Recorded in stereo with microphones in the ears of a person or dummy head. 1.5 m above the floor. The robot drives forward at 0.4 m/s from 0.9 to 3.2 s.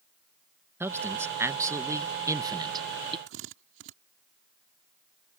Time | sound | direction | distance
0.8 | a man speaking | 10° right (ahead or behind) | ?
3.3 | a drill | 65° right (ahead or behind) | ?